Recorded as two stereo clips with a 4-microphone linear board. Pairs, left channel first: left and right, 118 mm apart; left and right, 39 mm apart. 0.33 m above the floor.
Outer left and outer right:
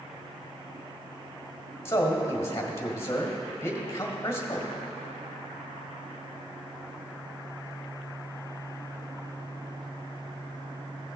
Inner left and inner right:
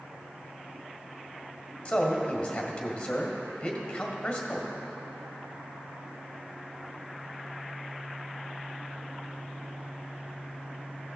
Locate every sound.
1.9 s a man speaking: 25° left (ahead or behind), 1.7 m